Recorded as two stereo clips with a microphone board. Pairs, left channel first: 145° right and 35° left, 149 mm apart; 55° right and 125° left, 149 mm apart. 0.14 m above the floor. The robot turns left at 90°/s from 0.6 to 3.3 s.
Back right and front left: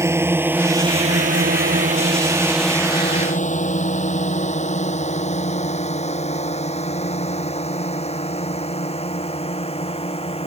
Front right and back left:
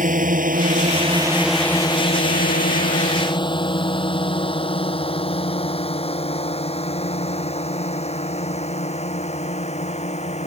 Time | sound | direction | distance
0.0 | a drone | 105° left | ?